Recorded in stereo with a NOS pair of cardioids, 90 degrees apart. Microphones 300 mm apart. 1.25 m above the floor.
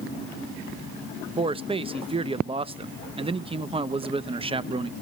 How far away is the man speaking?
About 0.9 m.